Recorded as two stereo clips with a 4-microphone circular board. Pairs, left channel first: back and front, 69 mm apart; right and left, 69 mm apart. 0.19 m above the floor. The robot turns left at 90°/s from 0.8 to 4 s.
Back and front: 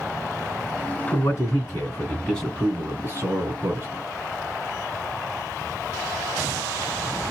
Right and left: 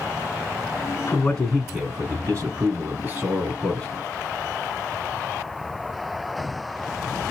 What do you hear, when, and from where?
1.1 s a man speaking: 145° right, 2 m; by 3.9 s 35° right, 2 m